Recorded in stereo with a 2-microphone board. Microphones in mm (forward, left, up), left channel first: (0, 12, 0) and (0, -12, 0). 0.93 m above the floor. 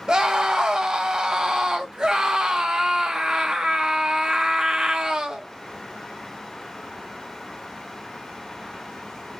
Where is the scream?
30° right (ahead or behind), 0.5 m.